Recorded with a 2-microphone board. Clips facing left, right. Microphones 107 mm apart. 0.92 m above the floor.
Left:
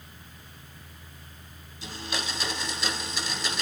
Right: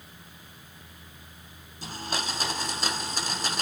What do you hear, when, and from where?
1.8 s a blender: 45° right (ahead or behind), 1.2 m